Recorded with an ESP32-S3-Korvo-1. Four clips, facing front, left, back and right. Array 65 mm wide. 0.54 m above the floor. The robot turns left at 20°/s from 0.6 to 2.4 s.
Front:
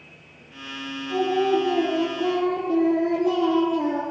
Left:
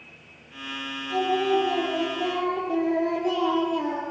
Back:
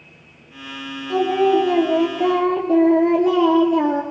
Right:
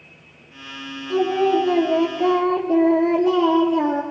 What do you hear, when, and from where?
1.1 s singing: 150° right, 4.5 m; by 4.0 s 175° right, 4.5 m